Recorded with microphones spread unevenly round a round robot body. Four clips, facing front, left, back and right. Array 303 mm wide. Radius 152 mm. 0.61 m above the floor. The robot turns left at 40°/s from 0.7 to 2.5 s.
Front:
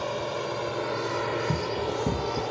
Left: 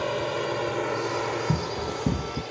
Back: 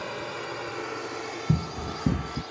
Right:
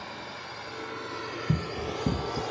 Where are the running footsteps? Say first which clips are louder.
Left 3 dB, front 2 dB; 170° left; by 2.4 s 130° left.